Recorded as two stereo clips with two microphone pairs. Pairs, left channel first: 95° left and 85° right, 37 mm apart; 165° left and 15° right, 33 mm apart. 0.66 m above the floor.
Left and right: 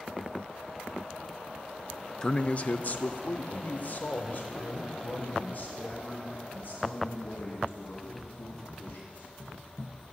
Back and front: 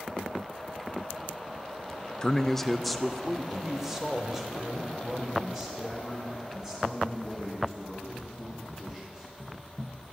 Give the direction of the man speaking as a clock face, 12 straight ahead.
8 o'clock.